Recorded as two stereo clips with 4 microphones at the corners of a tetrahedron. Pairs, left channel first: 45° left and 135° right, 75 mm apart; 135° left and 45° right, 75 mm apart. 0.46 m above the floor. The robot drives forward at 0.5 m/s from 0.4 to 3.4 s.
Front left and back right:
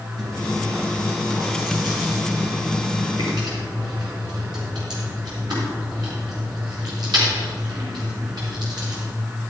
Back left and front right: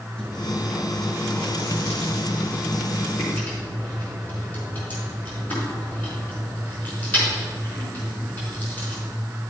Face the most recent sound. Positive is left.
turn(degrees=-160)